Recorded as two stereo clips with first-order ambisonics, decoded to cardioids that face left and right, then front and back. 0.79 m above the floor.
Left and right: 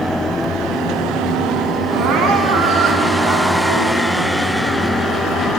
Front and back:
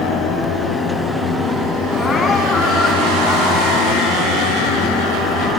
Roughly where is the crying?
Right.